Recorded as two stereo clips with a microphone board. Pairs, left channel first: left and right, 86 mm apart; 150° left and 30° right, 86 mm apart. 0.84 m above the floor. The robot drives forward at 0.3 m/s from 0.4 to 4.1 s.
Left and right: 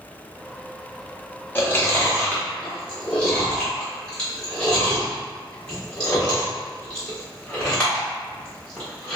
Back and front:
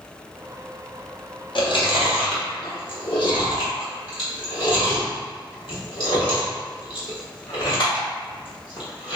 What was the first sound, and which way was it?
Chewing, 160° left.